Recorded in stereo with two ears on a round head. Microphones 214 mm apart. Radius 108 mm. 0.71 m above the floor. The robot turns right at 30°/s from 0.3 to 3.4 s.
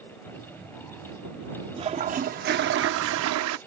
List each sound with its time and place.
1.8 s a toilet flushing: 160° right; by 3.6 s 110° right